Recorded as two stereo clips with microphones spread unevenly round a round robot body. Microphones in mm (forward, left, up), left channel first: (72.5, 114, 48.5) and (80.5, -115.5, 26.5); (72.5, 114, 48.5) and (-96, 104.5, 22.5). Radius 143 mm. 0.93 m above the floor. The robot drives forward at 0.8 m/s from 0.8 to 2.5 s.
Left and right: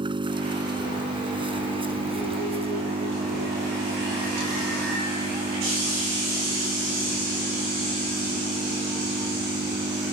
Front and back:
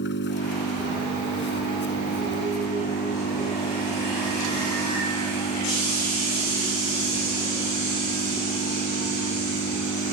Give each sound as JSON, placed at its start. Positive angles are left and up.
{"t": 0.0, "sound": "an engine running", "azimuth_deg": -20}